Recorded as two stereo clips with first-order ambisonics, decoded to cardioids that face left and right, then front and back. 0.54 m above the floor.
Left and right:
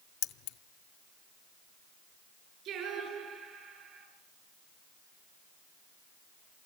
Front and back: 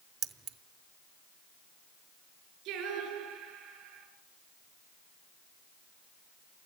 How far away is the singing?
About 6.5 m.